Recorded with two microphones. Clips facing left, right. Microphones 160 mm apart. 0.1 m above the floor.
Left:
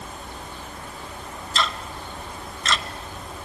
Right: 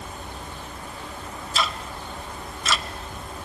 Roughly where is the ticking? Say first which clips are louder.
Left 1 dB; centre.